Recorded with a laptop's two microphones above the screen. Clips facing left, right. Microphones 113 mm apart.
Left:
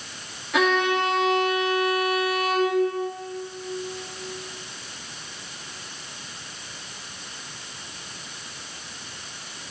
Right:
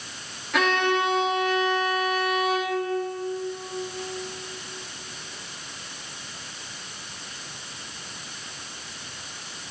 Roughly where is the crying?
No crying in this recording.